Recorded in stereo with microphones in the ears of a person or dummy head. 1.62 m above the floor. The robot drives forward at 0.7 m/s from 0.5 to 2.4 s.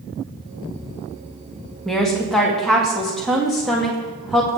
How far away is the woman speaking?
About 1.8 m.